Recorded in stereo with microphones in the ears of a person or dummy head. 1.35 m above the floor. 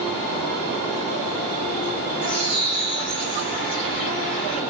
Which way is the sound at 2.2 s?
25° left (ahead or behind).